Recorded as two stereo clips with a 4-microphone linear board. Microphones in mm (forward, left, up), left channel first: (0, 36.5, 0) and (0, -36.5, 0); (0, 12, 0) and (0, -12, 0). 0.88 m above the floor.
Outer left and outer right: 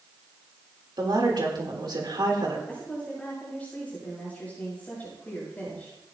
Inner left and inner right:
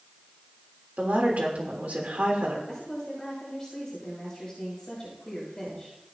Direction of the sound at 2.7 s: 20° left (ahead or behind).